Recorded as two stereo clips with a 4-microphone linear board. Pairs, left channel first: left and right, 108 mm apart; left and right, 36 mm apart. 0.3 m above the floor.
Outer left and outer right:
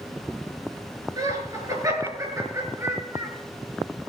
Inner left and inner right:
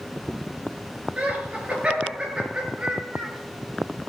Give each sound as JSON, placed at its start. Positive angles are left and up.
{"t": 1.2, "sound": "laughter", "side_deg": -35, "distance_m": 5.5}